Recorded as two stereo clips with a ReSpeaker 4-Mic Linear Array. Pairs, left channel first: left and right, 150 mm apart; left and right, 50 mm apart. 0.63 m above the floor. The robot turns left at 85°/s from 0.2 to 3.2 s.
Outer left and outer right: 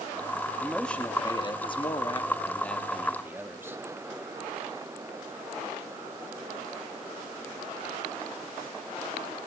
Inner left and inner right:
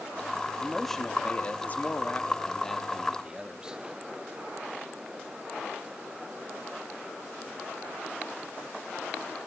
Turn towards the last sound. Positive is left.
turn(degrees=-30)